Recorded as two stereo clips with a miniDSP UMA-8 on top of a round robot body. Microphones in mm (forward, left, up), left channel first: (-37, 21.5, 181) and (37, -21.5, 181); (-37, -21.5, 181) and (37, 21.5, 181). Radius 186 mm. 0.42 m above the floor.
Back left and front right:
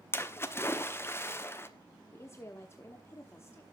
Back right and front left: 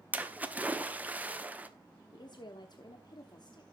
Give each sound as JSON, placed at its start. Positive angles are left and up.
{"t": 0.1, "sound": "a splash", "azimuth_deg": 95, "distance_m": 1.3}
{"t": 2.1, "sound": "a woman speaking", "azimuth_deg": -160, "distance_m": 1.3}